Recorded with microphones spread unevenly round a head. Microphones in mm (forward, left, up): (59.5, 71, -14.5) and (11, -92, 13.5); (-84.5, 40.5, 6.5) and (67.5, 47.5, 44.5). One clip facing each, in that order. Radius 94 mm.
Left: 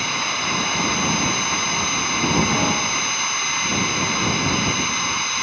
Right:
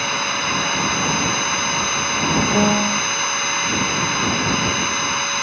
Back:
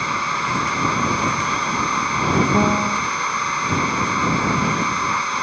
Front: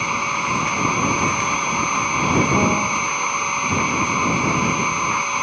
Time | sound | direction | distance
0.0 | a machine running | 75° right | ?
2.5 | a piano | 90° right | ?